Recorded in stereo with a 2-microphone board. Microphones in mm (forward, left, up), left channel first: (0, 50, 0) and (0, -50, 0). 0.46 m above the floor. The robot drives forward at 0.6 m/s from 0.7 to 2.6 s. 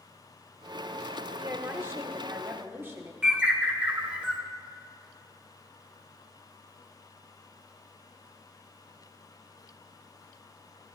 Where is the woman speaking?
25° right (ahead or behind), 1.1 m.